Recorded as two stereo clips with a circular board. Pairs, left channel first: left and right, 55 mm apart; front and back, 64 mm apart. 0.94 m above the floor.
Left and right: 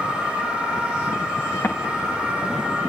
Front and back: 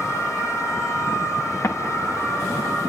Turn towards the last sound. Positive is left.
turn(degrees=50)